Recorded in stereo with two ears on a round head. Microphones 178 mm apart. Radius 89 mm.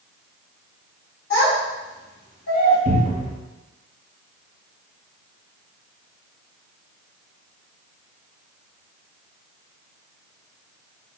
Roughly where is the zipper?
No zipper in this recording.